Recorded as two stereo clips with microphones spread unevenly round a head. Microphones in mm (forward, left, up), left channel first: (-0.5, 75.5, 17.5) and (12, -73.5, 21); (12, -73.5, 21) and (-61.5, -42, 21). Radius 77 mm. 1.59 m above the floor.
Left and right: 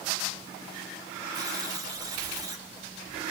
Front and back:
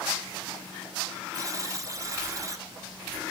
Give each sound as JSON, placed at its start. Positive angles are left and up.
{"t": 1.3, "sound": "a buzzer", "azimuth_deg": -155, "distance_m": 2.5}